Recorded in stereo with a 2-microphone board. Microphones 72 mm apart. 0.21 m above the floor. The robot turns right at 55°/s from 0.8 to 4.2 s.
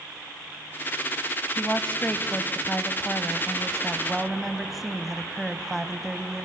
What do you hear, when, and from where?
1.6 s a woman speaking: 15° left (ahead or behind), 1.1 m; by 6.5 s centre (ahead or behind), 1.1 m